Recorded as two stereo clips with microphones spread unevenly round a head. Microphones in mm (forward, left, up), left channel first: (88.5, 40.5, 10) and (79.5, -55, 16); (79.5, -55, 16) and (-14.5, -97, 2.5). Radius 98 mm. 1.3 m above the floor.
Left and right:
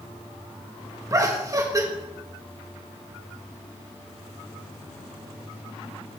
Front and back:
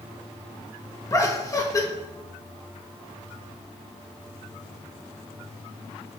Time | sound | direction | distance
1.1 | laughter | 40° right | 2.5 m